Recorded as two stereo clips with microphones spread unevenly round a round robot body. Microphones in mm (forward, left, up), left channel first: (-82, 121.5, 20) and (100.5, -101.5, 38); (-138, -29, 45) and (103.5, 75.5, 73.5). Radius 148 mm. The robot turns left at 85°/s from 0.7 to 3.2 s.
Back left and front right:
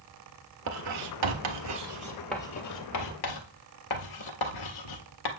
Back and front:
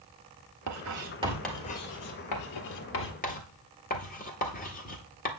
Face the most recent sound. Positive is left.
turn(degrees=145)